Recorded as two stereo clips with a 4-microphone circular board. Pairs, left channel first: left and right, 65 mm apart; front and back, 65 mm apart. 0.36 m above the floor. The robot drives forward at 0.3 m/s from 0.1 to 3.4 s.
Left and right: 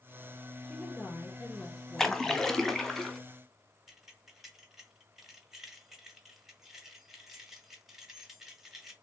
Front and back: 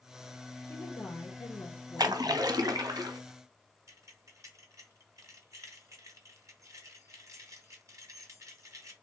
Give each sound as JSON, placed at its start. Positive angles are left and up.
{"t": 0.7, "sound": "a woman speaking", "azimuth_deg": 10, "distance_m": 2.5}
{"t": 2.0, "sound": "a splash", "azimuth_deg": 170, "distance_m": 0.6}
{"t": 3.9, "sound": "keys jangling", "azimuth_deg": -175, "distance_m": 1.2}